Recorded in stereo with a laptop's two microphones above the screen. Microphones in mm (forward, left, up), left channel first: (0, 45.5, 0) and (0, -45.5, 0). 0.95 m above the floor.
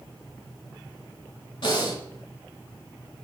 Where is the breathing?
60° left (ahead or behind), 1.6 m.